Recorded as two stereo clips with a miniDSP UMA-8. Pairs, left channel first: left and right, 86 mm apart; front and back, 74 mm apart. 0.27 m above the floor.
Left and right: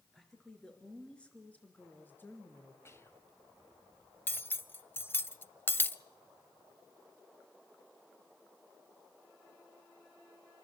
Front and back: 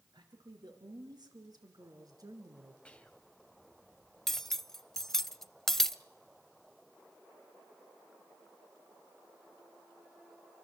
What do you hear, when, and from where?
0.1 s a woman speaking: 175° left, 4.5 m; by 2.8 s 145° left, 3.5 m
2.9 s whispering: 65° left, 1.4 m
4.3 s cutlery clinking: 80° left, 0.5 m